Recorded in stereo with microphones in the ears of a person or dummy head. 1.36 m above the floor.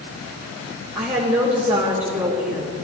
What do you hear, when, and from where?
0.9 s a woman speaking: 35° right (ahead or behind), 3.5 m